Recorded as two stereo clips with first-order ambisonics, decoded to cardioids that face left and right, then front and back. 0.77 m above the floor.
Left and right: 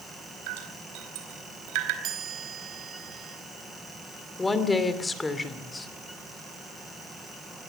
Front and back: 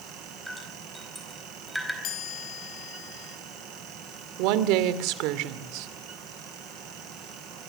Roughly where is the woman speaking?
Behind.